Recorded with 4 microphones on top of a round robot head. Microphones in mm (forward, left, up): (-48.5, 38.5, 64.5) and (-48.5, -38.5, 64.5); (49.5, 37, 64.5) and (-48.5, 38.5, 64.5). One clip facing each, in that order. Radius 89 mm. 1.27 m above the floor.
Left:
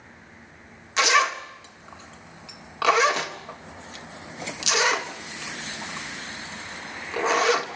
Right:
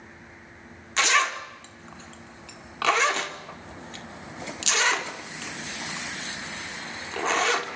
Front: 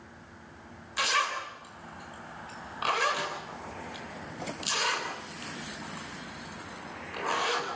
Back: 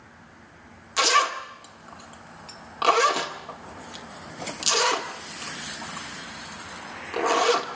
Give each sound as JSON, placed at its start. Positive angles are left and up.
{"t": 1.0, "sound": "a zipper", "azimuth_deg": 170, "distance_m": 2.5}